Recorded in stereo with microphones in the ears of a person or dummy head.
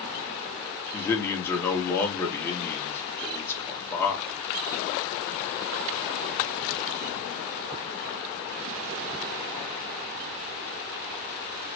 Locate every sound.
0.9 s a man speaking: 15° left (ahead or behind), 1.2 m